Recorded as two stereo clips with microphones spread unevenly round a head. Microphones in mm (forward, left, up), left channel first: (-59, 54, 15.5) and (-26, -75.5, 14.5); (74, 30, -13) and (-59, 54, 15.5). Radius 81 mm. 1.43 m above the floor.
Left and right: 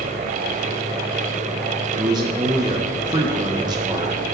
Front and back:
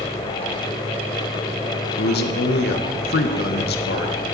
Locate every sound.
2.0 s a man speaking: 5° right, 1.3 m